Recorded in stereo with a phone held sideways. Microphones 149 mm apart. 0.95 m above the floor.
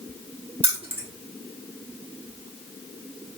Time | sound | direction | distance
0.6 | keys jangling | 40° right (ahead or behind) | 1.0 m